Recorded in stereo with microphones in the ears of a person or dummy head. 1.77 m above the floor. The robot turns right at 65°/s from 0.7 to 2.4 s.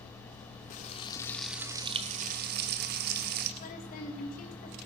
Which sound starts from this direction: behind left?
Frying, at 0.7 s.